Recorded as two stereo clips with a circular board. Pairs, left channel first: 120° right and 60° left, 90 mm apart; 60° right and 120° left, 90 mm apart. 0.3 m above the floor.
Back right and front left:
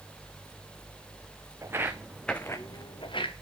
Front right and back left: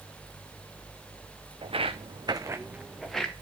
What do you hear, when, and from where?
1.6 s footsteps: 120° left, 1.3 m; by 3.3 s 140° right, 1.6 m